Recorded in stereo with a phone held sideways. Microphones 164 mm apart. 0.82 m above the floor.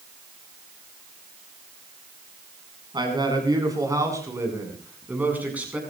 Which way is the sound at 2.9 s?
25° right (ahead or behind).